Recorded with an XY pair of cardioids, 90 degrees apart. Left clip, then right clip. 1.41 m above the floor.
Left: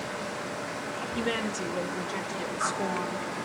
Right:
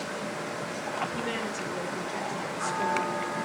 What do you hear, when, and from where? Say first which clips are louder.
1.1 s a woman speaking: left 2 dB; 30° left, 5.5 m; by 3.4 s 20° left, 6.5 m